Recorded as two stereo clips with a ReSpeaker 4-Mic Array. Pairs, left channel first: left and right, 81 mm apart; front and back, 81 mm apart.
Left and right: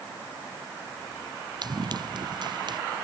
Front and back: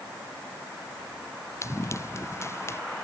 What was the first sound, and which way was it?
Running footsteps, 55° right.